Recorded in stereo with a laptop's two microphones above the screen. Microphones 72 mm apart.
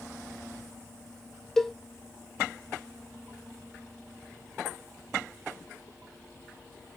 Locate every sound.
1.6 s a cowbell: 5° left (ahead or behind), 0.8 m